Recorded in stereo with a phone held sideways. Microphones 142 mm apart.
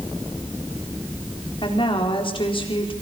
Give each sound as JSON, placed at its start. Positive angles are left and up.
{"t": 1.6, "sound": "a woman speaking", "side_deg": 35, "distance_m": 4.0}